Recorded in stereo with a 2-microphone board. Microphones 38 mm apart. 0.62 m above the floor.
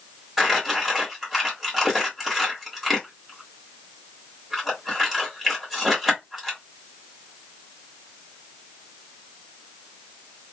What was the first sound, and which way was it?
Crumpling, 5° right (ahead or behind).